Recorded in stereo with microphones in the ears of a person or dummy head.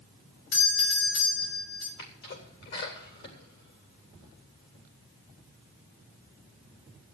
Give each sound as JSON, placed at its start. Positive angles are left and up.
{"t": 0.5, "sound": "a doorbell", "side_deg": 70, "distance_m": 5.5}
{"t": 2.0, "sound": "a sneeze", "side_deg": 60, "distance_m": 3.0}